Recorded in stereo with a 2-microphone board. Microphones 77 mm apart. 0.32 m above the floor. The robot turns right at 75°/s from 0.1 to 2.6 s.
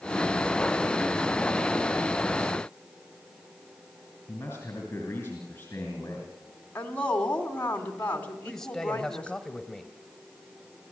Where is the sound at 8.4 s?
5° left (ahead or behind), 1.2 m.